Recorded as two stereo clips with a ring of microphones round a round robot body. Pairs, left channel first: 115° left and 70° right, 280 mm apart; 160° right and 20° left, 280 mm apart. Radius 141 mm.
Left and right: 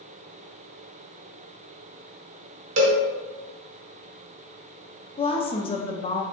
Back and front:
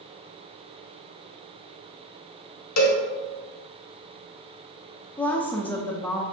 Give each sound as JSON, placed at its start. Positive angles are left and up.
{"t": 2.8, "sound": "a cowbell", "azimuth_deg": -120, "distance_m": 0.9}
{"t": 5.2, "sound": "a woman speaking", "azimuth_deg": 130, "distance_m": 0.5}